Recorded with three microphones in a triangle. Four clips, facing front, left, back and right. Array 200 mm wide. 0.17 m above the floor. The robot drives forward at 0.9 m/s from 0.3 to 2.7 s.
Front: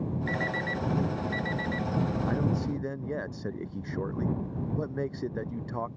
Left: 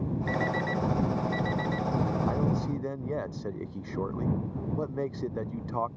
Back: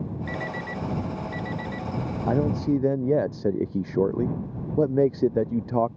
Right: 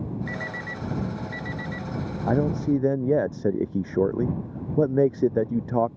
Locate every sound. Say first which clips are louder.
0.3 s an alarm clock: left 5 dB, even; 75° left; by 1.9 s 85° left
2.3 s a man speaking: right 6 dB, back 6 dB; 130° right